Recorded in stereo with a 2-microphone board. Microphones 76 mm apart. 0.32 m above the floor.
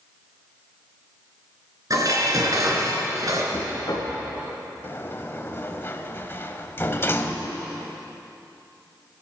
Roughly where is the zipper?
No zipper in this recording.